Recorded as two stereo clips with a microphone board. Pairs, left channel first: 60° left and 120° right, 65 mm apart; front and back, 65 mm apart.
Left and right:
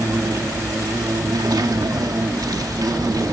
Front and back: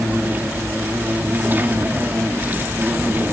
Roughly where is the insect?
Behind right.